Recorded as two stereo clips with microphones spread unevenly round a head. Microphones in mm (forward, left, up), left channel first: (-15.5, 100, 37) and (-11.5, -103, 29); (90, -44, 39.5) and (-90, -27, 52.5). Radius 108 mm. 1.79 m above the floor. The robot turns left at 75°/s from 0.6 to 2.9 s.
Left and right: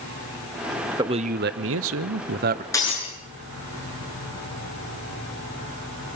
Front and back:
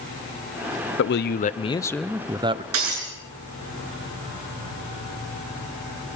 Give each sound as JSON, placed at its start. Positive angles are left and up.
{"t": 1.0, "sound": "a man speaking", "azimuth_deg": -15, "distance_m": 0.7}
{"t": 2.7, "sound": "breaking glass", "azimuth_deg": 165, "distance_m": 7.5}